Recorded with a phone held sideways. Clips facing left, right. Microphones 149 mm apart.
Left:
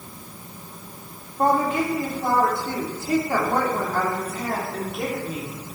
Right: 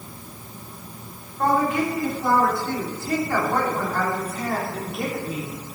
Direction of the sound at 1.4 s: 30° left (ahead or behind).